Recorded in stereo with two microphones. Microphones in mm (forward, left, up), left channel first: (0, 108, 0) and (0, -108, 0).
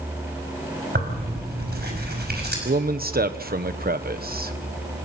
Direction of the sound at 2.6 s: 45° right (ahead or behind).